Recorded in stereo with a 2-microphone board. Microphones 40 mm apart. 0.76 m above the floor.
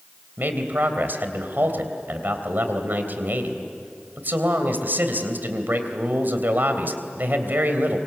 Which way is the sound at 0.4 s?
55° right (ahead or behind).